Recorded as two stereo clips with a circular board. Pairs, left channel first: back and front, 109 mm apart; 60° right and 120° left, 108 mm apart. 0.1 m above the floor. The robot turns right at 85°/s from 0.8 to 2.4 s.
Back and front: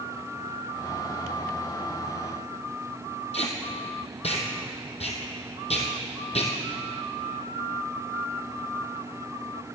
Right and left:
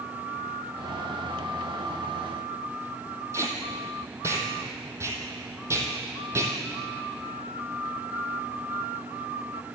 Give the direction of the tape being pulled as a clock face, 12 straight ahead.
6 o'clock.